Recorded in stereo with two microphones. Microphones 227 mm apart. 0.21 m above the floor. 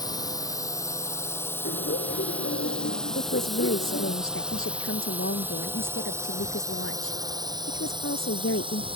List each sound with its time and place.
0.0 s a drone: 15° left (ahead or behind); by 9.0 s 25° right (ahead or behind)
1.6 s laughter: 70° left (ahead or behind)
3.1 s a woman speaking: 70° left (ahead or behind)